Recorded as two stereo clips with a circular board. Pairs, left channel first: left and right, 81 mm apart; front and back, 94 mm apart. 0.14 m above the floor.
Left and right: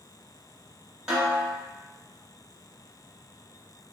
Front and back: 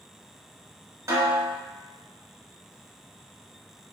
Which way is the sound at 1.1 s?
165° right.